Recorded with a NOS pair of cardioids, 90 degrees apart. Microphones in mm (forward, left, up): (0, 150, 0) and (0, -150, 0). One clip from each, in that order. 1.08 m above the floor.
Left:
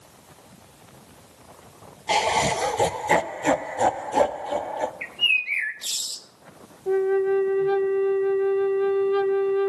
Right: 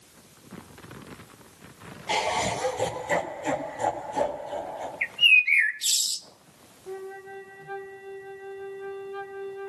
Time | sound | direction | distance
2.1 | laughter | 25° left | 1.1 m
5.0 | a bird | 30° right | 1.1 m
6.9 | a flute | 65° left | 0.8 m